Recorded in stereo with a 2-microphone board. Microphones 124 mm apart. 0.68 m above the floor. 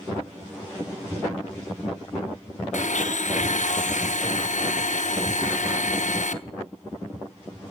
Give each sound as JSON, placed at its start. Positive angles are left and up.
{"t": 2.7, "sound": "a blender", "side_deg": 75, "distance_m": 0.5}